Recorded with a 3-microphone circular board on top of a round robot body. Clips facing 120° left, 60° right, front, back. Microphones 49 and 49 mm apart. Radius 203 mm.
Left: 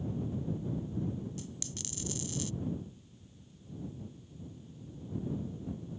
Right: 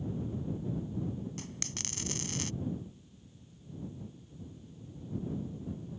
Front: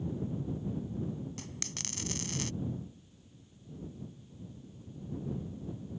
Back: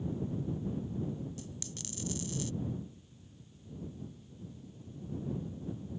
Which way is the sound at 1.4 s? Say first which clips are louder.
Right 1 dB, front 2 dB; 30° right.